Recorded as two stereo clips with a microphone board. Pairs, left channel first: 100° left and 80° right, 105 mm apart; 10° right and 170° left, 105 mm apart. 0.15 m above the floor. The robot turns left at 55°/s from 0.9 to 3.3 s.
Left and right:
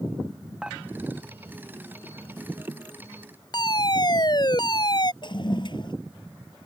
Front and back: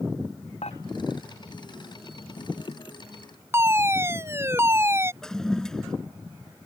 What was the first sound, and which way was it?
Dishes clattering, straight ahead.